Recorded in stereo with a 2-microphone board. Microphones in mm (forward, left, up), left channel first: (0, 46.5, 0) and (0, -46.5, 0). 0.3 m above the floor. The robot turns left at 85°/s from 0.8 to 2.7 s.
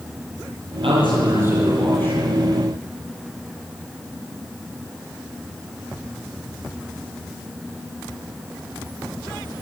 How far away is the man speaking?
About 9.5 m.